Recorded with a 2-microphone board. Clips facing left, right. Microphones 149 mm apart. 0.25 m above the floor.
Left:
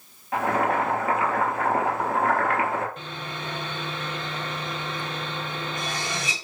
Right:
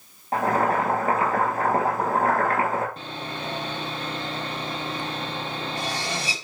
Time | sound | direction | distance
0.3 | boiling | 40° right (ahead or behind) | 3 m
3.0 | sawing | 35° right (ahead or behind) | 1.7 m